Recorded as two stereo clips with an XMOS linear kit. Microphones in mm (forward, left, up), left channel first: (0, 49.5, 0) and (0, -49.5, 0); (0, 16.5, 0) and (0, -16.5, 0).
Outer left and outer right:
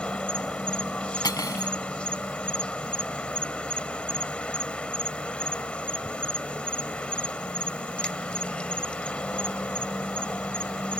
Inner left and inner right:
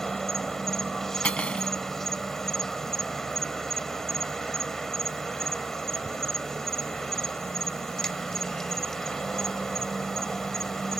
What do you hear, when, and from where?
0.0 s an insect: 10° left (ahead or behind)
1.2 s cutlery clinking: 40° left (ahead or behind)